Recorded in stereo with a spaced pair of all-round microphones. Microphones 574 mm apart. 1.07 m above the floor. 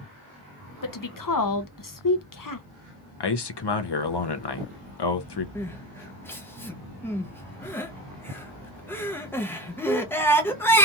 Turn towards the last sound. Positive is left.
turn(degrees=5)  # may be behind; listen again after turning